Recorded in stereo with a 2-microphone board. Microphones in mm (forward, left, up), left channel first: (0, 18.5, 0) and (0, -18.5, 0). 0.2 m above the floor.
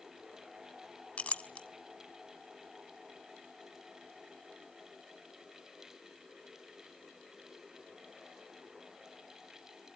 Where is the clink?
35° left (ahead or behind), 0.7 m.